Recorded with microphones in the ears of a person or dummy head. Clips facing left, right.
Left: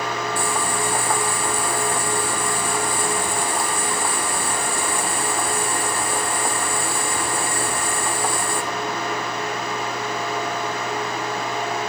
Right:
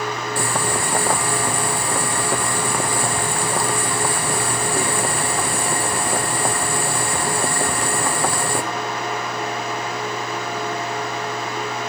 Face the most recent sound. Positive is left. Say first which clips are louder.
# right 1 dB
turn(degrees=-50)  # may be behind; listen again after turning